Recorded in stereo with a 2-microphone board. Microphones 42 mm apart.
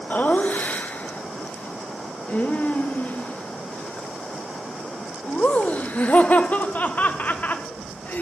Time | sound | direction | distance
0.1 | laughter | 45° left (ahead or behind) | 1.1 m